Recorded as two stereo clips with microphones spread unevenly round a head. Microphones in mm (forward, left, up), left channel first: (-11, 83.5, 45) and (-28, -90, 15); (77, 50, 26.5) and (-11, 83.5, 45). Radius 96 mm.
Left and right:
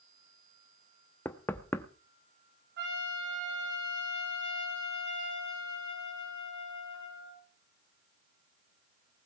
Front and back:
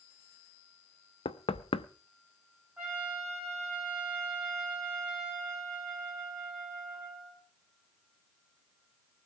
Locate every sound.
1.2 s knocking: 10° left, 0.9 m
2.8 s a trumpet: 115° right, 7.5 m